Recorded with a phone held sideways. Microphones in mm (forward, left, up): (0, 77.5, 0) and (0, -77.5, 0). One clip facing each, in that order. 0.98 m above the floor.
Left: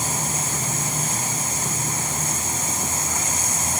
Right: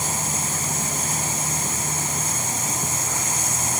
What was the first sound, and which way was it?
Only background noise.